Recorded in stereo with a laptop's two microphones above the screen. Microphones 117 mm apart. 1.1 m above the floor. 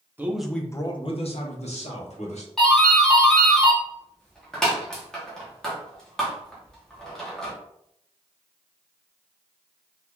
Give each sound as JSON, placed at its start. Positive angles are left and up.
{"t": 0.2, "sound": "a man speaking", "side_deg": -15, "distance_m": 0.6}
{"t": 2.6, "sound": "a doorbell", "side_deg": 5, "distance_m": 0.8}